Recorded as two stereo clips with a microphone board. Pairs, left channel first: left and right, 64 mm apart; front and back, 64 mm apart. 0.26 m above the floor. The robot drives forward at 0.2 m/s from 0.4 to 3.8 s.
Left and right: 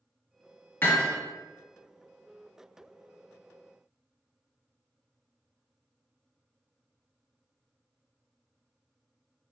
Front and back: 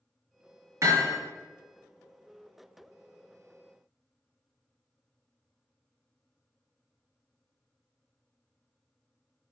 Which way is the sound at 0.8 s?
140° left.